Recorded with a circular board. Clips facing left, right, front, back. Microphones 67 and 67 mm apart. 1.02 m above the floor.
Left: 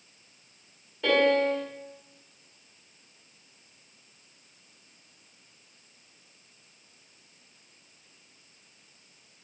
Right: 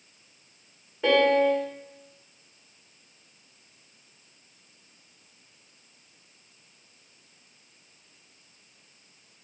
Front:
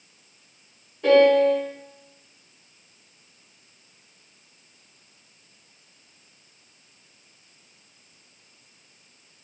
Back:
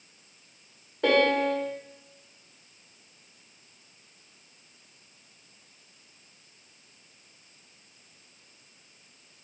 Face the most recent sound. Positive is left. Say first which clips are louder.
# right 2 dB, front 7 dB
turn(degrees=-160)